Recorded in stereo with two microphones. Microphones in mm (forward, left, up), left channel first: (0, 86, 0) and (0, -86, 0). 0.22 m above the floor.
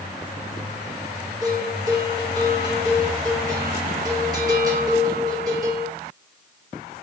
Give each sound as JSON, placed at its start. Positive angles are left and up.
{"t": 1.4, "sound": "a bell", "side_deg": -20, "distance_m": 2.0}